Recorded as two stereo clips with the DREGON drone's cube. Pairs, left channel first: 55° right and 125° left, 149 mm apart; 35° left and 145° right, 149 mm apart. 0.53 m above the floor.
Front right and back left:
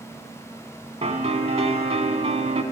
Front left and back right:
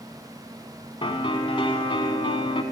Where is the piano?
85° left, 0.8 m.